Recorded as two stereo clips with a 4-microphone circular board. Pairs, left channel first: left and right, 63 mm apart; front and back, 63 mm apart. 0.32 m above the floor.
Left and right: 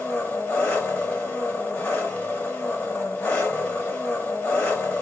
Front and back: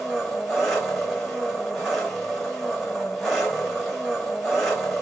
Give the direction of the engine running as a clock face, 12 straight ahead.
9 o'clock.